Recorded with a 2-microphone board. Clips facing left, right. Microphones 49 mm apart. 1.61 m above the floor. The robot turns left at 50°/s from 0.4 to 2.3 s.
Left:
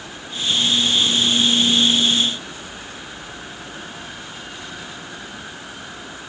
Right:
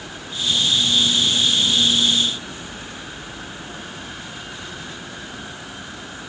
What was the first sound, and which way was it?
Only background noise.